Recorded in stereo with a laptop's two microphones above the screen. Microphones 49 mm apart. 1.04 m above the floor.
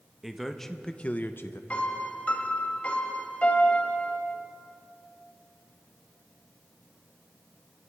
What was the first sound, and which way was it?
A man speaking, 5° right (ahead or behind).